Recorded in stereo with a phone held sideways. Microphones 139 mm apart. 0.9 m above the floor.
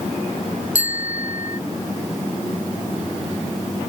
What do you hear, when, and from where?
0.8 s a bicycle bell: 70° left (ahead or behind)